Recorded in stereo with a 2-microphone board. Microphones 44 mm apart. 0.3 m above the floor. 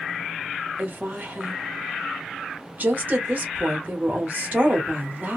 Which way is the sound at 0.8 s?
40° right (ahead or behind).